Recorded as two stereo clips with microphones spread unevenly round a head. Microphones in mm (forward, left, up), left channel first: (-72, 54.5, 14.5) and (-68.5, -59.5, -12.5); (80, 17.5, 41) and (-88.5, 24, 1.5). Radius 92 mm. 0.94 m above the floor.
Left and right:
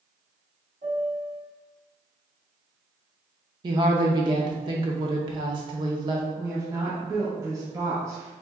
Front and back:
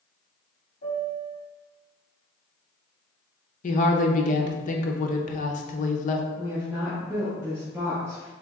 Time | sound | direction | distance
0.8 | a piano | 40° right | 1.2 m
3.6 | a woman speaking | 55° right | 0.6 m
6.4 | a woman speaking | 125° right | 1.0 m